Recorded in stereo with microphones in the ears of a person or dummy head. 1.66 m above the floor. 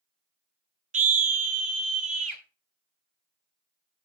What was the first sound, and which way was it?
A scream, 40° right (ahead or behind).